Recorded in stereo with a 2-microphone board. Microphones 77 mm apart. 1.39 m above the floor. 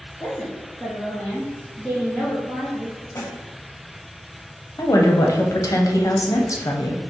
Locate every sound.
0.2 s a woman speaking: 10° left (ahead or behind), 1.0 m
3.1 s a snare drum: 40° left (ahead or behind), 1.1 m
4.8 s a woman speaking: 45° left (ahead or behind), 0.7 m